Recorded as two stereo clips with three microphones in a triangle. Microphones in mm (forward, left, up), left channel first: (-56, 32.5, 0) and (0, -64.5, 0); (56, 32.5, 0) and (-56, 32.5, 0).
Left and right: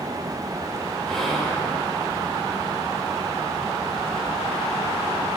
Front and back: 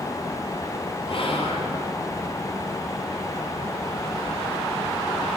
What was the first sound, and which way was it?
Whispering, 35° left.